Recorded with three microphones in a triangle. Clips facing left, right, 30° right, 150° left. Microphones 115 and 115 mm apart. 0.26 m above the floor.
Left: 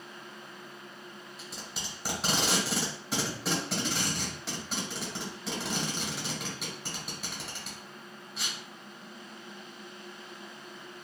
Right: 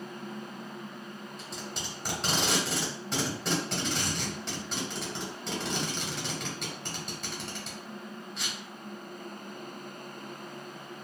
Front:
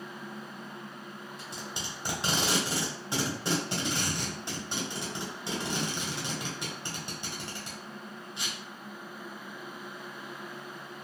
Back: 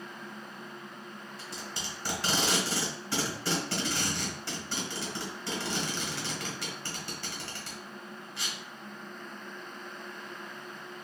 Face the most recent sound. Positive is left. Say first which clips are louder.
# right 3 dB, even
turn(degrees=5)